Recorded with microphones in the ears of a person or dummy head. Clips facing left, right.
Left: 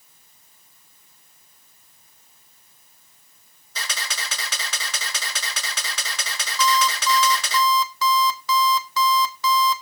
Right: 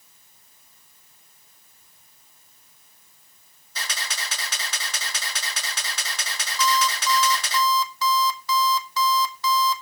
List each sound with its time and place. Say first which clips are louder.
3.8 s a camera shutter: left 1 dB; 70° left (ahead or behind), 6.5 m
6.6 s an alarm clock: left 2 dB; 65° left (ahead or behind), 1.4 m